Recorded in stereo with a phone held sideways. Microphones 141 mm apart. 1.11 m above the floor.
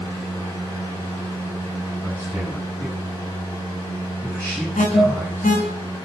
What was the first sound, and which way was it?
A fan, 35° left (ahead or behind).